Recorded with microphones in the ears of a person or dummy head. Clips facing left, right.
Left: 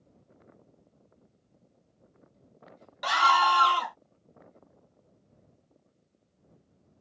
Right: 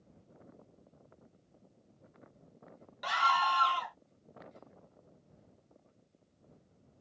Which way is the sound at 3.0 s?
75° left (ahead or behind).